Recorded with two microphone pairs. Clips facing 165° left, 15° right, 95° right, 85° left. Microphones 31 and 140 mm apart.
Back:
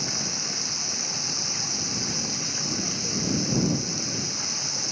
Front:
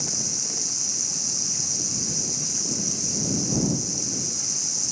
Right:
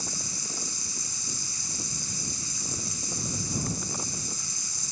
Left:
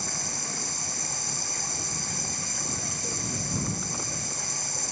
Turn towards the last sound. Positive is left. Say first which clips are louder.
# back 2 dB, left 3 dB
turn(degrees=110)